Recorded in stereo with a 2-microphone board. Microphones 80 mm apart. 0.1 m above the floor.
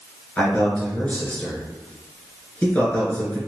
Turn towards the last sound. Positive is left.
turn(degrees=15)  # may be behind; listen again after turning